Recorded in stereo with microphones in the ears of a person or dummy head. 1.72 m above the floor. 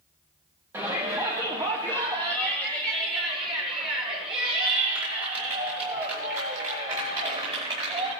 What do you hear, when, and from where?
0.7 s a shout: 15° right (ahead or behind), 1.3 m; by 8.1 s 35° right (ahead or behind), 7 m